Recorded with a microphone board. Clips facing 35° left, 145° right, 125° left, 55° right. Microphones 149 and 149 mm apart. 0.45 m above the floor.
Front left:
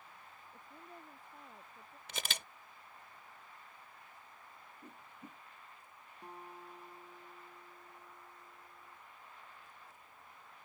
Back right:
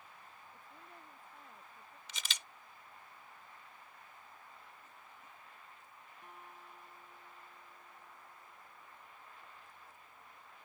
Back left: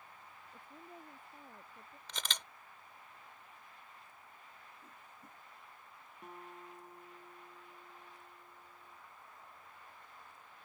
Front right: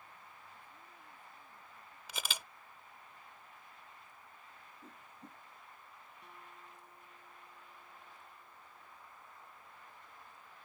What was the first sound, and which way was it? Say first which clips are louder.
A woman speaking: front left 3 dB, back left 5 dB; 100° left.